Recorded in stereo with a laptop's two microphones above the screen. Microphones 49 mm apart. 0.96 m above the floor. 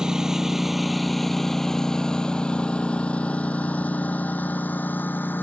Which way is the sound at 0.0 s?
15° right (ahead or behind).